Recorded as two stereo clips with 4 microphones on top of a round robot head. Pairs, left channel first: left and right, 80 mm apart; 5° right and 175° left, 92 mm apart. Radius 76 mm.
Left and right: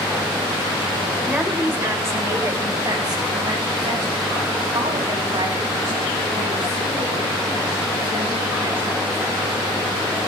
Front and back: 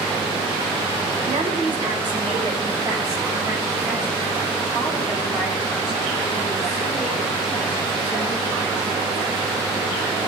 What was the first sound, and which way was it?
A woman speaking, 160° right.